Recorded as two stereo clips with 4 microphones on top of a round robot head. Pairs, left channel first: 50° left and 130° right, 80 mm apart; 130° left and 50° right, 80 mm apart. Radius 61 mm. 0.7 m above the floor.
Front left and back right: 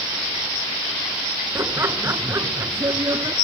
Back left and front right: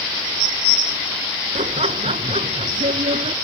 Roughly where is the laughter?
Ahead right.